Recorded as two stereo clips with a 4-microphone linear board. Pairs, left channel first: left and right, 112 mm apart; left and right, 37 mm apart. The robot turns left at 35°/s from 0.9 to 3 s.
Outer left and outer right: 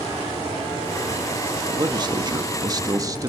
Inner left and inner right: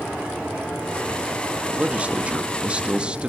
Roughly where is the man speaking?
Right.